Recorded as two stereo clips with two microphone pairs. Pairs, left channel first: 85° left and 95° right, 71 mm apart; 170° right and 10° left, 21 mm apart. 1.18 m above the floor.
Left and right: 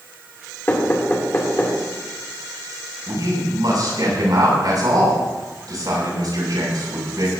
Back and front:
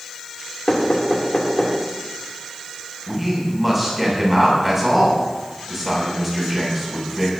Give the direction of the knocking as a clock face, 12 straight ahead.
7 o'clock.